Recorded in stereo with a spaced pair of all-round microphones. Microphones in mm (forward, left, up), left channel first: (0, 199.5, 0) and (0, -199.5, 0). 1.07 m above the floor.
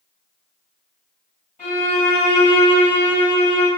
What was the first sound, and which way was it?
A violin, 15° left (ahead or behind).